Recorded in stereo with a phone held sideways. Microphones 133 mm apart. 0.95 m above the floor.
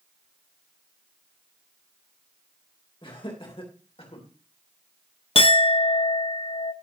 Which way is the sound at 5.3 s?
45° left (ahead or behind).